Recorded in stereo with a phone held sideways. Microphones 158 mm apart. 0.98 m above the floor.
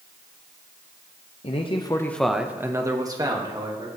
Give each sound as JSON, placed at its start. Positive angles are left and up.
{"t": 1.4, "sound": "a man speaking", "side_deg": 40, "distance_m": 0.8}